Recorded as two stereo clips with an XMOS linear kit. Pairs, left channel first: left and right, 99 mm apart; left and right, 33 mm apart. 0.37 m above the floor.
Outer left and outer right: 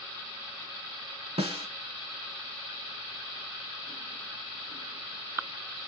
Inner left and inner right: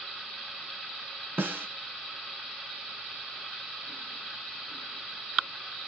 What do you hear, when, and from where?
1.4 s a snare drum: 85° right, 0.7 m